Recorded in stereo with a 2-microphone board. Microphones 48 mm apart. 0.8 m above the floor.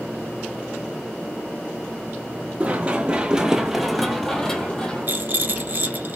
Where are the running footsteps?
30° right (ahead or behind), 0.9 m; by 5.6 s 25° left (ahead or behind), 1.4 m.